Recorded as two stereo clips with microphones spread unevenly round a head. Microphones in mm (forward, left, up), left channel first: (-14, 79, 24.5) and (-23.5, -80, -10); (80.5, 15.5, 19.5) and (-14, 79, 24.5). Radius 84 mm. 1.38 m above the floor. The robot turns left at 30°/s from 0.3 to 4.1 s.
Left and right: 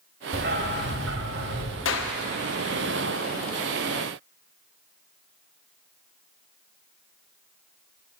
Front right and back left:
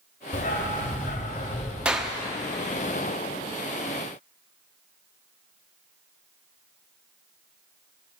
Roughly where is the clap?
Ahead left.